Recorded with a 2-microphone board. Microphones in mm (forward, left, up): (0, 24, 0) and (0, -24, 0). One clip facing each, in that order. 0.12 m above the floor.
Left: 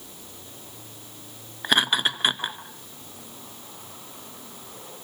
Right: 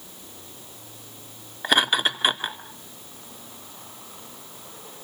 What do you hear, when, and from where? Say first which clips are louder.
1.6 s laughter: right 1 dB; centre (ahead or behind), 1.9 m